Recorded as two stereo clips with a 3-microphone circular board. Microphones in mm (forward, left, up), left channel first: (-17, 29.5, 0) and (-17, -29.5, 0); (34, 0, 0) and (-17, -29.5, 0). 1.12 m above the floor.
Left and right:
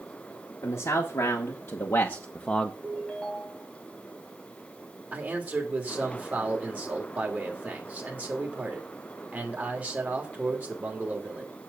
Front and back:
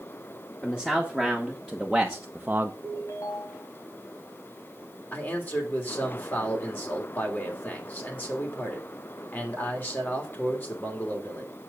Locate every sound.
0.6 s a man speaking: 100° left, 2 m; by 2.7 s 170° left, 0.7 m
2.8 s a ringtone: 10° left, 3 m
5.1 s a man speaking: 25° right, 3 m